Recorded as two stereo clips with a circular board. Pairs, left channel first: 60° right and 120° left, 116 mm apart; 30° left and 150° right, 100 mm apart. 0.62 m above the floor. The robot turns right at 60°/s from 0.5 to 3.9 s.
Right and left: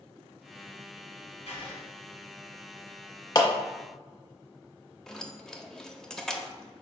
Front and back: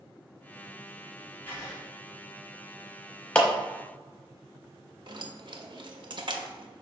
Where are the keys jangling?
145° right, 0.6 m.